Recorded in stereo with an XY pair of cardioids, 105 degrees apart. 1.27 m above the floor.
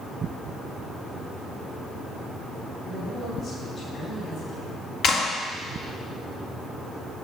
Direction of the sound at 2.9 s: 65° left.